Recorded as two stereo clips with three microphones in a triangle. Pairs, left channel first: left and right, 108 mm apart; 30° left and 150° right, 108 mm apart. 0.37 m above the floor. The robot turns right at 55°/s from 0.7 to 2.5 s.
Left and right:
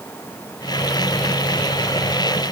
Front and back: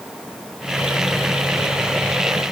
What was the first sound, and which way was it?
Only background noise.